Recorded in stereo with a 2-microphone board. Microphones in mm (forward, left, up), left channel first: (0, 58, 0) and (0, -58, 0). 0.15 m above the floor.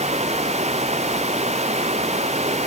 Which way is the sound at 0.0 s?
65° right (ahead or behind).